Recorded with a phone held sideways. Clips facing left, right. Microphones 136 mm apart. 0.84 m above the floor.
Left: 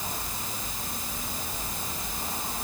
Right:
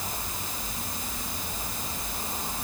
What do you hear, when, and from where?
Only background noise.